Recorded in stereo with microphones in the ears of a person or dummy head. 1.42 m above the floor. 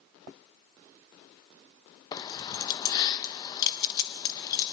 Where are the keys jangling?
25° left (ahead or behind), 0.8 m.